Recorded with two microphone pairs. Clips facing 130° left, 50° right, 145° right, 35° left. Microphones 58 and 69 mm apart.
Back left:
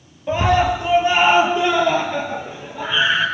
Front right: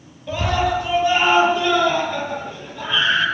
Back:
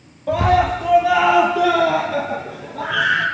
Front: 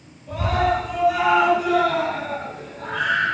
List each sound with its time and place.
0.3 s a scream: 165° right, 8 m; by 3.2 s 150° right, 9 m